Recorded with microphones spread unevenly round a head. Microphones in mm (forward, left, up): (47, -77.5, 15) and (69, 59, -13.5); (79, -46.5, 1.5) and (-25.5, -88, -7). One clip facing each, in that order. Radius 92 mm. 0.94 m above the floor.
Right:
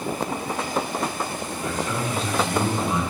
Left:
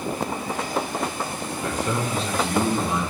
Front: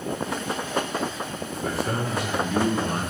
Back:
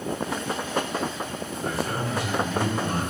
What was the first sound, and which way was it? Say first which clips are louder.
A man speaking: left 2 dB, front 2 dB; 70° left.